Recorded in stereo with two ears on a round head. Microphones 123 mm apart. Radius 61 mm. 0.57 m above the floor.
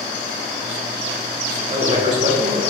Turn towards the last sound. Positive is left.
turn(degrees=-40)  # may be behind; listen again after turning